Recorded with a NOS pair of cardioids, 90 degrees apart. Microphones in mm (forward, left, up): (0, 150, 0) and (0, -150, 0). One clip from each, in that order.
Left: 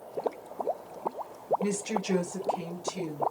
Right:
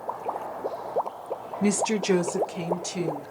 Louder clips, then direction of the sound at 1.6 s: Right 6 dB; 40° right.